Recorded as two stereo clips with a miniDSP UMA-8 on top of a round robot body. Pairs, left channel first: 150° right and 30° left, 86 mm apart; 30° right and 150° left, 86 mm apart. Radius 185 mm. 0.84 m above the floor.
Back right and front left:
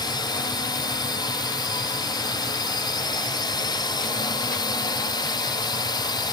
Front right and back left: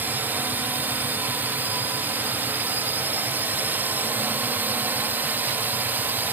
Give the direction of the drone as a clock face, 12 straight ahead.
5 o'clock.